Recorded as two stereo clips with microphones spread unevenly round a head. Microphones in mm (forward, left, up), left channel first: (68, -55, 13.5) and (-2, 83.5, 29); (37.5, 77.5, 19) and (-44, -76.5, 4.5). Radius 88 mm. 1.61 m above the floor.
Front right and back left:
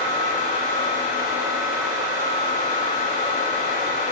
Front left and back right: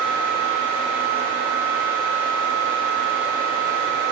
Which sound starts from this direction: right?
A fan, at 0.0 s.